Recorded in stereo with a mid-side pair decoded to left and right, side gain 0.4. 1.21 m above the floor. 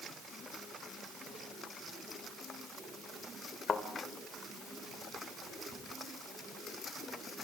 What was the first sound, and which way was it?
A thud, 50° left.